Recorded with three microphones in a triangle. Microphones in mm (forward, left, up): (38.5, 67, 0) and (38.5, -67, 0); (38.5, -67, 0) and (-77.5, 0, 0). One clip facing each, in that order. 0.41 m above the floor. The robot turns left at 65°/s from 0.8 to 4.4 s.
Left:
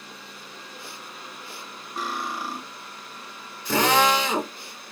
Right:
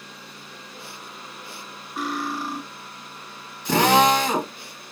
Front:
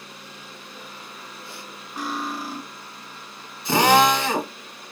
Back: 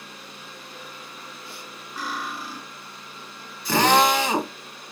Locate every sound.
2.0 s cutlery clinking: 40° left, 0.9 m; by 2.6 s 5° right, 0.9 m
3.6 s a drill: 95° right, 1.0 m; by 4.5 s 145° right, 1.0 m